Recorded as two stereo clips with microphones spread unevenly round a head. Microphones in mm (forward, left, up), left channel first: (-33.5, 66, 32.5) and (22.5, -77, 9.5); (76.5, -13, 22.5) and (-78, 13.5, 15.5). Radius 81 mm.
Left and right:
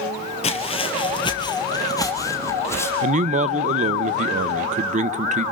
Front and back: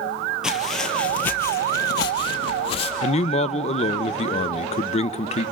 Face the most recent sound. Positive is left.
turn(degrees=-55)